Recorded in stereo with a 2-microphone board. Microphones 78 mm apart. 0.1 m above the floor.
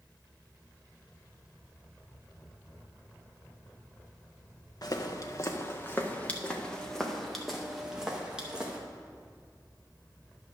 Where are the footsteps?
50° left (ahead or behind), 1.3 m; by 8.8 s 15° right (ahead or behind), 2.5 m.